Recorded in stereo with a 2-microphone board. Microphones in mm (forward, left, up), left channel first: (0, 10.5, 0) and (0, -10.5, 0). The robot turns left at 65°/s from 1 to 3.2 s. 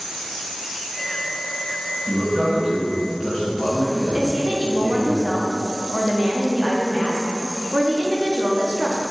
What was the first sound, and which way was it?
A man speaking, 145° right.